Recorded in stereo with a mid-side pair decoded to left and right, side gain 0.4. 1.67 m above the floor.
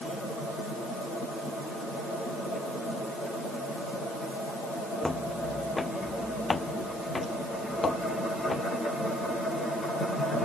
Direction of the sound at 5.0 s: 20° left.